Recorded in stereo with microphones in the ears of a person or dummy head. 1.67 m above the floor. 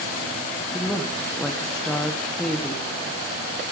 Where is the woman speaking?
Centre (ahead or behind), 1.1 m.